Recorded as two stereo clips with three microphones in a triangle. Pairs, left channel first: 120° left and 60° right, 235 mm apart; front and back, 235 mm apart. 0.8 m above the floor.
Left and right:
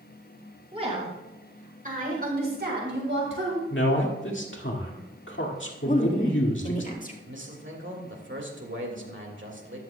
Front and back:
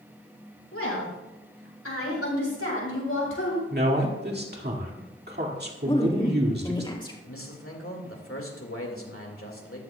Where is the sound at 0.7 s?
5° left, 5.5 m; by 3.6 s 30° right, 4 m.